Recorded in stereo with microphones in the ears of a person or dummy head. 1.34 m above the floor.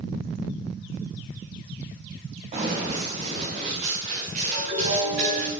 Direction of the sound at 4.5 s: 65° right (ahead or behind).